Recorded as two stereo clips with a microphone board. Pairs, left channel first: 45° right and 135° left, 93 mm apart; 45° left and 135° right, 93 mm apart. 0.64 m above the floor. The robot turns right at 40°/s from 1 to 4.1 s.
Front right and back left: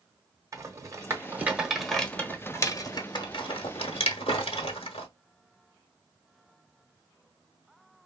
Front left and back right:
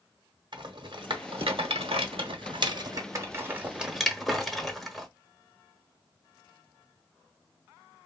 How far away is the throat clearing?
I don't hear throat clearing.